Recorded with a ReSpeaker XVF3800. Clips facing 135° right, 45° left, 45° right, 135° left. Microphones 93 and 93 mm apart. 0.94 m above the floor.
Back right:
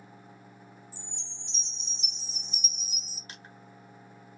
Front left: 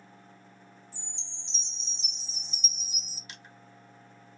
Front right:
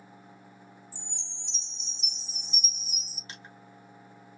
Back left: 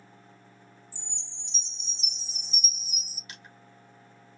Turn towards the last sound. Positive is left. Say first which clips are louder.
# back right 2 dB, front right 2 dB
turn(degrees=-95)